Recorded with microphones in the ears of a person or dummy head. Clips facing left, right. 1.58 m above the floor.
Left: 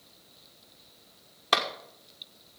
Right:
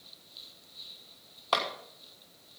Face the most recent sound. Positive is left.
turn(degrees=25)  # may be behind; listen again after turning